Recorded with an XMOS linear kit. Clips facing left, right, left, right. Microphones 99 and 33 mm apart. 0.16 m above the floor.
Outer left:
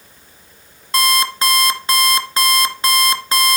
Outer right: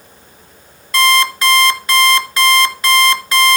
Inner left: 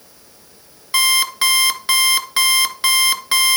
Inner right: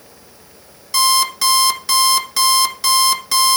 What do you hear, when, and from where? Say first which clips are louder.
0.9 s an alarm clock: outer right 4 dB, even; 30° left (ahead or behind), 1.5 m